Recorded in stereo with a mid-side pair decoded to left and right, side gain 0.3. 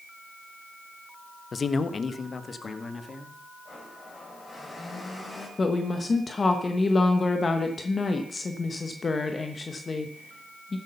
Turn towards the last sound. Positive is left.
turn(degrees=45)